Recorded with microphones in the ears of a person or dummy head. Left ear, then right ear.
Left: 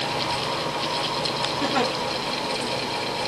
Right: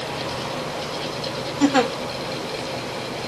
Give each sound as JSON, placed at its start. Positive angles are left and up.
{"t": 1.6, "sound": "a giggle", "side_deg": -75, "distance_m": 3.0}